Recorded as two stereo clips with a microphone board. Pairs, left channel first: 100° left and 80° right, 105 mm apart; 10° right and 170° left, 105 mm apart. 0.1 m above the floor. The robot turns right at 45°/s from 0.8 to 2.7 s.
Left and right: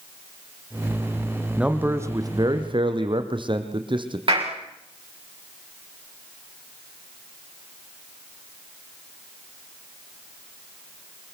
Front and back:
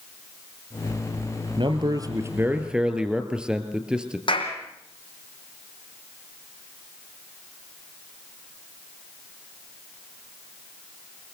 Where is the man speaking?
160° right, 2.5 m; by 4.2 s 110° right, 2.5 m.